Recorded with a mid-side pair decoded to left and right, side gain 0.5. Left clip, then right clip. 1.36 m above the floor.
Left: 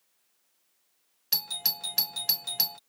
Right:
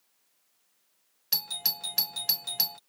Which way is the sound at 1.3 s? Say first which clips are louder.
Left 1 dB; 10° left.